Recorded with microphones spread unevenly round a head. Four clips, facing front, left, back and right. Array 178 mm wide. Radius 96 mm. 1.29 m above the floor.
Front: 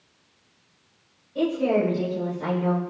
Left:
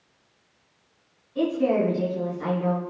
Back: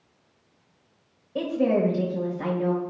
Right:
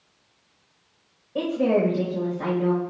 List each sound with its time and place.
1.4 s a woman speaking: 140° right, 5.5 m